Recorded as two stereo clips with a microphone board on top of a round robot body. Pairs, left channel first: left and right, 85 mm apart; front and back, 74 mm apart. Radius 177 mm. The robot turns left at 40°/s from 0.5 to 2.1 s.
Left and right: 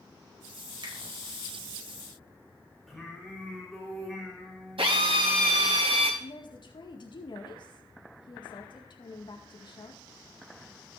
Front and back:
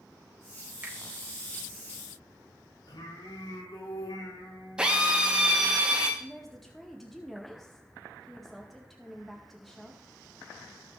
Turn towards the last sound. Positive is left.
turn(degrees=90)